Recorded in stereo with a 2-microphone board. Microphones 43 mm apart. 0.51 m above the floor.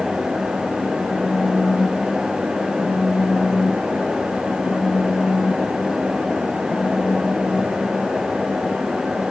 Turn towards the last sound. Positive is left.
turn(degrees=80)